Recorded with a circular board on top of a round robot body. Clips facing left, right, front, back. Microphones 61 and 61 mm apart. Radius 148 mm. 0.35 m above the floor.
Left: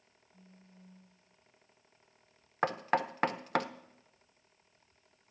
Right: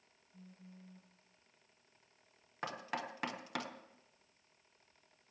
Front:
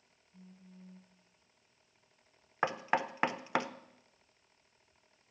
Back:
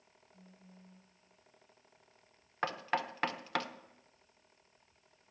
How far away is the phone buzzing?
About 5 m.